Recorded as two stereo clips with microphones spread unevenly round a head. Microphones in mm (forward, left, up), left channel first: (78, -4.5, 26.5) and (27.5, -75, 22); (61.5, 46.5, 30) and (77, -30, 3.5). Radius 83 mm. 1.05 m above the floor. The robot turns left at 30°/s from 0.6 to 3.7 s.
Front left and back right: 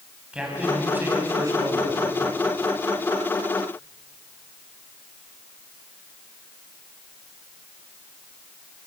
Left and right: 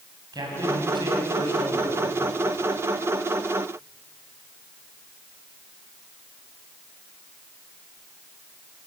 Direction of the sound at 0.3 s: 45° right.